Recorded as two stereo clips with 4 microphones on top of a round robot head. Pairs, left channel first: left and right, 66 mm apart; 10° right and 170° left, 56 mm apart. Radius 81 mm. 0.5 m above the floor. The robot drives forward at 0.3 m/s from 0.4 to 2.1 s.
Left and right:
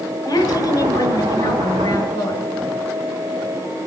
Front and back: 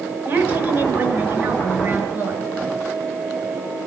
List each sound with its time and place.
0.2 s a woman speaking: 125° left, 6.5 m